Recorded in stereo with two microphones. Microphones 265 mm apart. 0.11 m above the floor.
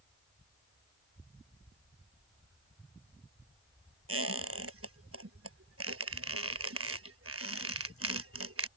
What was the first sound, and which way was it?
A squeak, 60° right (ahead or behind).